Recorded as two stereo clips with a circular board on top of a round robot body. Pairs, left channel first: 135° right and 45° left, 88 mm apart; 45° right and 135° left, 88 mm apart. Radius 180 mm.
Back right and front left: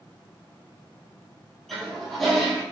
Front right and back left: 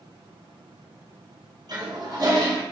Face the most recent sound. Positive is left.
turn(degrees=140)